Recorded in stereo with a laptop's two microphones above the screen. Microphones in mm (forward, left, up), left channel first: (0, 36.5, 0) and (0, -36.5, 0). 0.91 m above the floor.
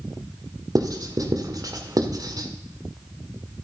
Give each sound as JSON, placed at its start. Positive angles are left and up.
{"t": 0.8, "sound": "writing", "side_deg": -60, "distance_m": 1.4}